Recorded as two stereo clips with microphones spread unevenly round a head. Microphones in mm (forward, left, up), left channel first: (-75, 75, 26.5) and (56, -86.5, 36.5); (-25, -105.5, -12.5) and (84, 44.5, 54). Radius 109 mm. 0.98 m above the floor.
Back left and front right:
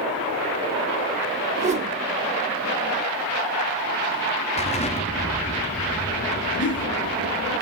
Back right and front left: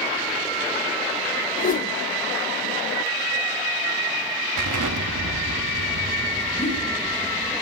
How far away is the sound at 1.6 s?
About 0.8 m.